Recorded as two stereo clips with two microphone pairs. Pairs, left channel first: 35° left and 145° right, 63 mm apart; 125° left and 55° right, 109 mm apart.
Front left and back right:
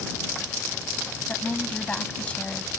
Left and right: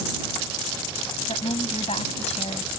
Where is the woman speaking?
105° left.